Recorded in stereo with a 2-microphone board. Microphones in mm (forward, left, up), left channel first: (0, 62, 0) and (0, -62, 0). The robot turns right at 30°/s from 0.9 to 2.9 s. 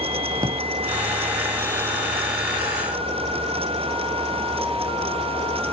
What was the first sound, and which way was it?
A drawer, 30° right (ahead or behind).